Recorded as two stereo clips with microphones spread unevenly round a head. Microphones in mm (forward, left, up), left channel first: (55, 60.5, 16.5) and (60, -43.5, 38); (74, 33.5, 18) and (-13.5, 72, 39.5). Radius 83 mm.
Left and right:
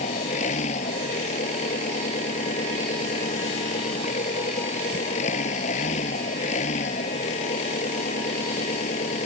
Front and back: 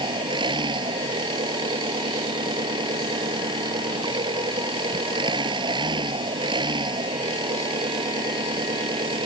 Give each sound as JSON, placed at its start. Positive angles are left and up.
{"t": 0.0, "sound": "an engine running", "azimuth_deg": 120}